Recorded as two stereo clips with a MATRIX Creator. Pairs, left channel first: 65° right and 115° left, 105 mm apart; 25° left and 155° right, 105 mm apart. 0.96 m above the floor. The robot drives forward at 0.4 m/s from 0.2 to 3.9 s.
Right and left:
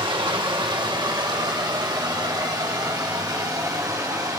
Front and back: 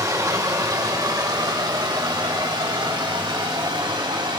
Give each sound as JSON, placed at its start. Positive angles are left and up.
{"t": 0.0, "sound": "running water", "azimuth_deg": 145, "distance_m": 1.6}